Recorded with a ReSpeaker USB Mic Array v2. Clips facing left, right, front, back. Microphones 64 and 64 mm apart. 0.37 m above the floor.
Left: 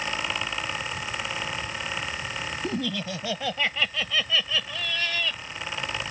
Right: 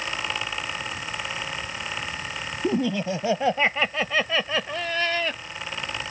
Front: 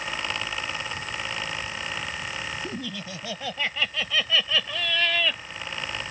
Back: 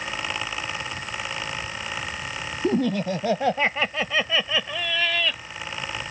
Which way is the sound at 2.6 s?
155° right.